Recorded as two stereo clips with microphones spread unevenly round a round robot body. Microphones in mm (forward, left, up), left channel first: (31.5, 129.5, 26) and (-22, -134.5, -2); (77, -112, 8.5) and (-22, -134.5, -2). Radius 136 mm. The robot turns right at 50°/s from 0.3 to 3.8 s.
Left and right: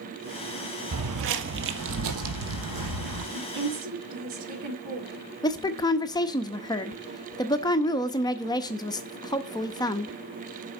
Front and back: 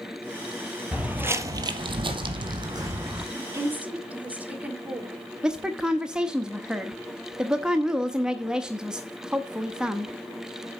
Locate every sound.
0.9 s footsteps: 85° right, 0.9 m; by 3.2 s 95° right, 2.5 m
3.3 s a woman speaking: 115° right, 1.9 m; by 5.2 s 95° right, 1.9 m
5.4 s a woman speaking: 145° left, 0.6 m